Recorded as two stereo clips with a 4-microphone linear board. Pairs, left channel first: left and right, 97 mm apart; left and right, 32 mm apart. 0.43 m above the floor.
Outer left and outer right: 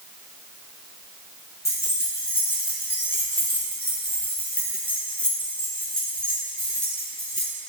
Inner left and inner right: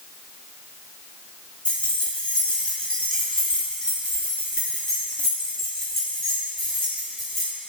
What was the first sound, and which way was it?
Keys jangling, 30° left (ahead or behind).